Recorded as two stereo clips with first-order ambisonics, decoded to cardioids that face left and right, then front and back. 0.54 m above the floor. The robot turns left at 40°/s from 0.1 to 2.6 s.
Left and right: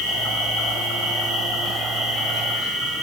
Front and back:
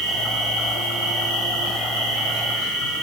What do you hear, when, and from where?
0.0 s an insect: 75° left, 6 m; by 3.0 s 25° right, 6 m